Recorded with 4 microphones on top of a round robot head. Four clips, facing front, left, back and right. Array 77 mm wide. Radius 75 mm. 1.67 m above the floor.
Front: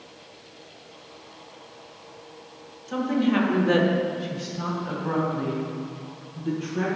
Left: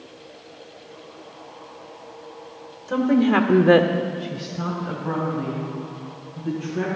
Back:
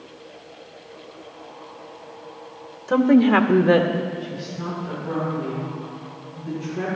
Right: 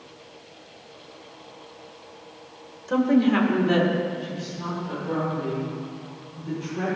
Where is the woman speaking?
175° right, 1.2 m; by 6.9 s 45° left, 4.5 m.